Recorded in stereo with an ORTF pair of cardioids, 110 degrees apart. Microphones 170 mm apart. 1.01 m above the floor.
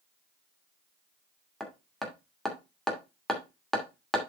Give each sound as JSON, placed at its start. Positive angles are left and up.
{"t": 1.6, "sound": "hammering", "azimuth_deg": 5, "distance_m": 2.5}